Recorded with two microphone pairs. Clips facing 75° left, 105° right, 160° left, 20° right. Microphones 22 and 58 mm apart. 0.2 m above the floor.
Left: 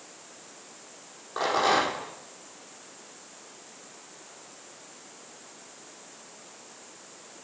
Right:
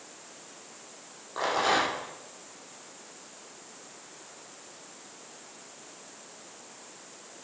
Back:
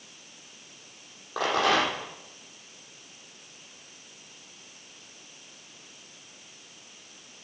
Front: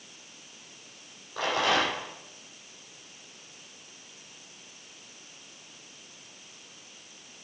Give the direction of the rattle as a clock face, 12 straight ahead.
7 o'clock.